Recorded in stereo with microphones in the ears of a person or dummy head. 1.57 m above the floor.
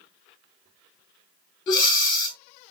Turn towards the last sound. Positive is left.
turn(degrees=30)  # may be behind; listen again after turning